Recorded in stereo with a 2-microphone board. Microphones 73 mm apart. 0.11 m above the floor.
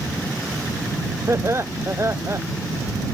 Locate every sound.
1.3 s laughter: 35° right (ahead or behind)